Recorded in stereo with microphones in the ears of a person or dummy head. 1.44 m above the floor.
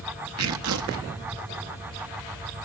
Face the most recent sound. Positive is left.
turn(degrees=-80)